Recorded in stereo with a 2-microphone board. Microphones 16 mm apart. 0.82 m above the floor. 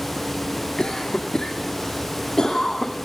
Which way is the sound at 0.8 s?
55° left (ahead or behind).